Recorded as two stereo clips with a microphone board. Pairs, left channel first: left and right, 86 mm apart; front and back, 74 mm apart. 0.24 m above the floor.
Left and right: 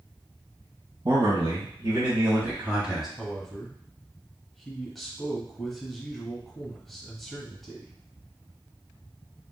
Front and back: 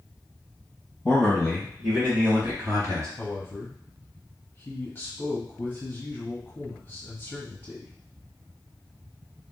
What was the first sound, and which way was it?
A man speaking, 75° right.